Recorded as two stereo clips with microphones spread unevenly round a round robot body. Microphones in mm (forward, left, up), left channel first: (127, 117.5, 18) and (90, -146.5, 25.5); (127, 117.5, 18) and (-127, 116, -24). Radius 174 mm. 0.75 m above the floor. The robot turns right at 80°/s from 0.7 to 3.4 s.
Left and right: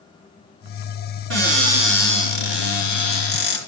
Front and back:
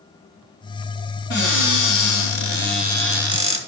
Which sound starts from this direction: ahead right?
A cupboard door, at 1.3 s.